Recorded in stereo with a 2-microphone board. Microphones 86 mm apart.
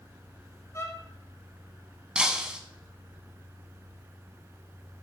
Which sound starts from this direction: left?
A violin, at 0.7 s.